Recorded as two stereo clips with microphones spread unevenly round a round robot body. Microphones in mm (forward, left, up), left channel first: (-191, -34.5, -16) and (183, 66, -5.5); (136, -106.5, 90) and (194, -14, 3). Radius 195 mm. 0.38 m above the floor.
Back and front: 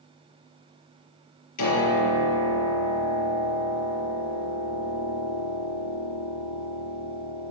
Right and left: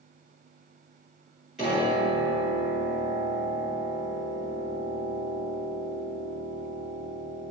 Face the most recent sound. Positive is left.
turn(degrees=140)